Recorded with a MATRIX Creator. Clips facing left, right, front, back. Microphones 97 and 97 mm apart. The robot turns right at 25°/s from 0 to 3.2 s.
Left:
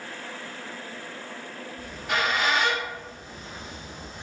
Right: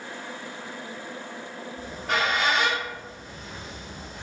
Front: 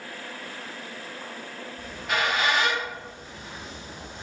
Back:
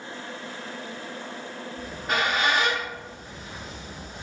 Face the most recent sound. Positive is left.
turn(degrees=-105)